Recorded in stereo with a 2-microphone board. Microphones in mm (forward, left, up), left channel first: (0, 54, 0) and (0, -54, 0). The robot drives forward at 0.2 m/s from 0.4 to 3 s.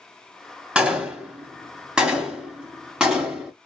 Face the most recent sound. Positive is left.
turn(degrees=-10)  # may be behind; listen again after turning